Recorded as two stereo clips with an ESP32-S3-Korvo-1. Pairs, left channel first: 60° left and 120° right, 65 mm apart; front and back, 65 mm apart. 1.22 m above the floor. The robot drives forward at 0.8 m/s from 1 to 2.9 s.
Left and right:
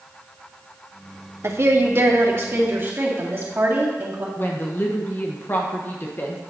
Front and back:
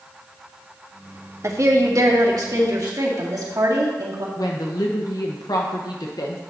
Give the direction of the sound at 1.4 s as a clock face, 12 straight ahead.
5 o'clock.